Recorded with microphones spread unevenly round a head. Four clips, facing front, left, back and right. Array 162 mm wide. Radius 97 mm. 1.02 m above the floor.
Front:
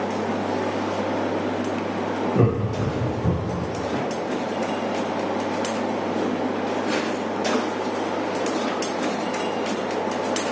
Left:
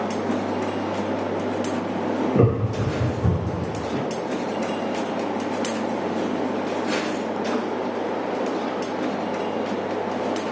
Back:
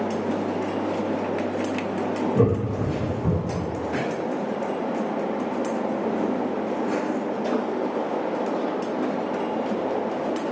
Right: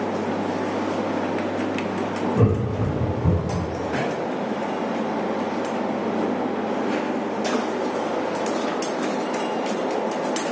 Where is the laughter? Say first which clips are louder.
Even, back 1 dB; 100° left, 1.5 m; by 3.7 s 85° left, 3.5 m.